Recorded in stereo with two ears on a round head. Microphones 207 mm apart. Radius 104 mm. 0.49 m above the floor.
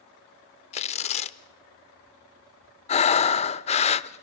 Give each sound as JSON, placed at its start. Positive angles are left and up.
{"t": 0.7, "sound": "tearing paper", "side_deg": 25, "distance_m": 0.5}
{"t": 2.9, "sound": "breathing", "side_deg": 30, "distance_m": 0.5}